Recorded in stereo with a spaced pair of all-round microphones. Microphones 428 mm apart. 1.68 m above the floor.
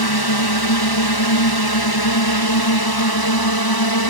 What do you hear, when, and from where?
0.0 s a drone: 60° left (ahead or behind); by 4.1 s 55° left (ahead or behind)